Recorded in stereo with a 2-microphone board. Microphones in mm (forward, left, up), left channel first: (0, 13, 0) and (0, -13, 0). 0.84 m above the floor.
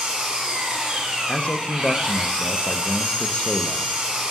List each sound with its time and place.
0.0 s an engine running: 30° right (ahead or behind), 2 m
1.3 s a man speaking: 40° left (ahead or behind), 0.5 m